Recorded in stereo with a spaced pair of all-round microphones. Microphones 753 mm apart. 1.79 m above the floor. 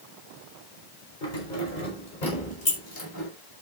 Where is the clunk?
No clunk in this recording.